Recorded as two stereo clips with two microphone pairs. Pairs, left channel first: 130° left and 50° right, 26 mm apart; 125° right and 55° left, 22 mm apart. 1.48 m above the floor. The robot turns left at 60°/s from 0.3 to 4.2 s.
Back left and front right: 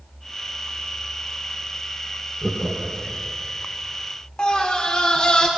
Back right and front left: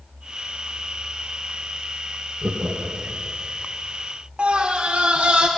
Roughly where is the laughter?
Ahead left.